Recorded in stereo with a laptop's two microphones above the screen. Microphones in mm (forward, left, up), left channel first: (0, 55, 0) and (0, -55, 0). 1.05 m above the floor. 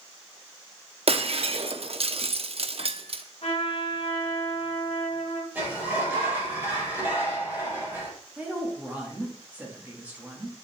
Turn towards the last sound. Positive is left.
turn(degrees=-15)  # may be behind; listen again after turning